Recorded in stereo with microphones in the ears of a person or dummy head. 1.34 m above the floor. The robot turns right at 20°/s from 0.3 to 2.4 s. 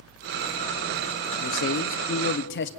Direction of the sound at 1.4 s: 65° left (ahead or behind).